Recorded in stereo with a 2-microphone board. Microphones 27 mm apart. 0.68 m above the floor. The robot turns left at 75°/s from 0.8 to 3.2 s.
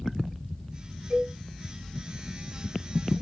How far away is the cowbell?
About 3.5 m.